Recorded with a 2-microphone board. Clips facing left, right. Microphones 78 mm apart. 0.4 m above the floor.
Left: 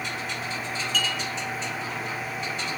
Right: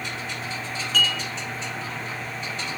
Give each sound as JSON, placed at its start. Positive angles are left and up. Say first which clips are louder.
{"t": 0.9, "sound": "dishes clattering", "louder": "right 5 dB", "side_deg": -50, "distance_m": 3.0}